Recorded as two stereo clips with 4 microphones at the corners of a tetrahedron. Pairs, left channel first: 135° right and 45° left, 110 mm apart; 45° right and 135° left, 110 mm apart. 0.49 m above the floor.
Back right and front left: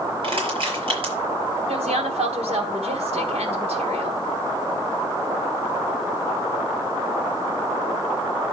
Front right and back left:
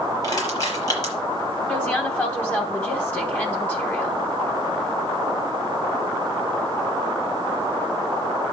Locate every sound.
0.2 s crushing: 5° left, 6 m
1.7 s a woman speaking: 25° left, 3 m